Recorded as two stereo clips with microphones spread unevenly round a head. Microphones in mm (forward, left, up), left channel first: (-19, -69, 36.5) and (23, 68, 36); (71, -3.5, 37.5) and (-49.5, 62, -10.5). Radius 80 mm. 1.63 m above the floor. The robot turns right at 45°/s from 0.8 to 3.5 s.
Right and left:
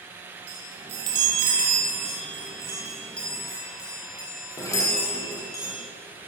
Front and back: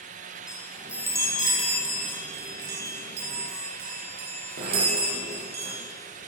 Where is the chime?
65° left, 9.5 m; by 5.8 s 175° right, 9.5 m.